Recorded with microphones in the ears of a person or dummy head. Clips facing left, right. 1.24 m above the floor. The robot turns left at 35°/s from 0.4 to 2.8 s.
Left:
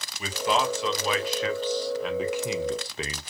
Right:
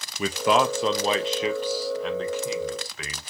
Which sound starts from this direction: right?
A man speaking, at 0.2 s.